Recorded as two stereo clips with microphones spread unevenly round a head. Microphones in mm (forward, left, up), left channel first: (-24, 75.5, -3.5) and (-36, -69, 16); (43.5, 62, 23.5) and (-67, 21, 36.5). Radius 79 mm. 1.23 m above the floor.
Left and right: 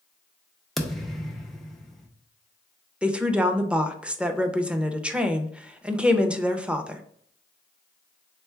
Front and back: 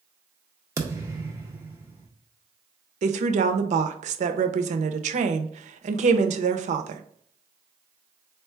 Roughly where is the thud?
Behind.